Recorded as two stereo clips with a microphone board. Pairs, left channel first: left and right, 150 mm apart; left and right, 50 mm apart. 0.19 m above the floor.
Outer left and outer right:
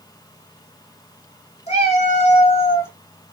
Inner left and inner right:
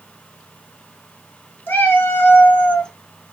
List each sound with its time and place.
1.7 s a cat meowing: 50° left (ahead or behind), 1.3 m; by 2.9 s 10° left (ahead or behind), 0.5 m